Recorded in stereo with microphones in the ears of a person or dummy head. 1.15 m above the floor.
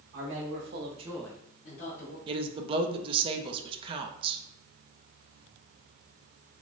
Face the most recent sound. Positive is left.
turn(degrees=-30)  # may be behind; listen again after turning